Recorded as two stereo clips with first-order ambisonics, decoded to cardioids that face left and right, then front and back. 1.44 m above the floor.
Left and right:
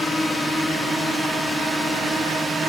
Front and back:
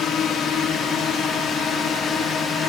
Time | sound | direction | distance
0.0 | a drone | 10° left | ?